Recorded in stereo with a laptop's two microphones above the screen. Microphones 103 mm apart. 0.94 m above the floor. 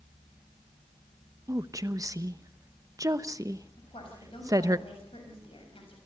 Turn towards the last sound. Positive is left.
turn(degrees=70)  # may be behind; listen again after turning